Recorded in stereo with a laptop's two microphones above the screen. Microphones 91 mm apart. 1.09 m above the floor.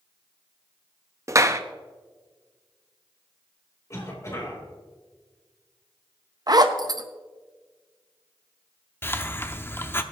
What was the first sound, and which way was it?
A clap, 35° right (ahead or behind).